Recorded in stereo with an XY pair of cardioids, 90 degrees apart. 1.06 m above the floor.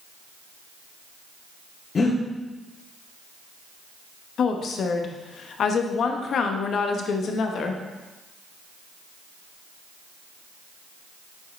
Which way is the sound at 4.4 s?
65° left.